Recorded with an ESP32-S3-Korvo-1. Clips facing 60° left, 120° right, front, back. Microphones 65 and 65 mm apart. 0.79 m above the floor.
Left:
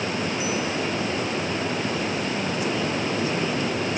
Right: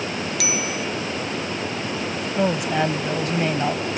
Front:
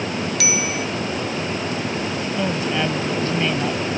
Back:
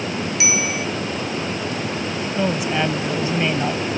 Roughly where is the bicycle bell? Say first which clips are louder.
Even, back 2 dB; behind right.